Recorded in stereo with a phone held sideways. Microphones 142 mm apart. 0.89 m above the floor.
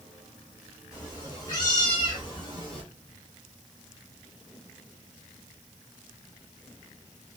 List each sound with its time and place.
0.9 s a cat meowing: 25° left (ahead or behind), 2.5 m; by 2.8 s 40° left (ahead or behind), 1.2 m